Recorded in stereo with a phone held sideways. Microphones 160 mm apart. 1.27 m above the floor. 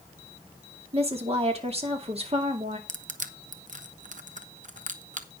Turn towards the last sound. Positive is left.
turn(degrees=-50)  # may be behind; listen again after turning